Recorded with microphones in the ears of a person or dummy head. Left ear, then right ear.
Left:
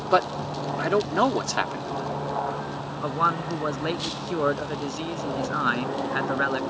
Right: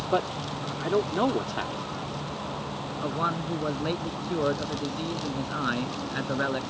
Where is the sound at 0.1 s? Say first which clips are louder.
Left 6 dB; 60° left (ahead or behind).